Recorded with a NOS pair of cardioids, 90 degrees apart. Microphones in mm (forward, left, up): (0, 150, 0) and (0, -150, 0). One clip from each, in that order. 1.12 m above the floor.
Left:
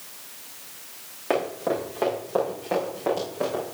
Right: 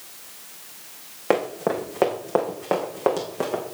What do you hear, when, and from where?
1.3 s running footsteps: 45° right, 5 m; by 3.6 s 75° right, 5.5 m